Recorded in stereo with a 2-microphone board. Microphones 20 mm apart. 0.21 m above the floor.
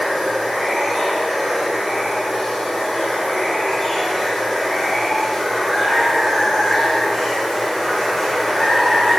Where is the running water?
5° right (ahead or behind), 3.5 m.